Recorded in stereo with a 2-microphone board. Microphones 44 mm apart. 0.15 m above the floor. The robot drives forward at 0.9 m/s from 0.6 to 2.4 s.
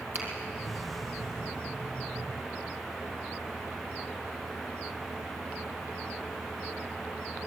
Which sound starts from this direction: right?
A finger snap, at 0.1 s.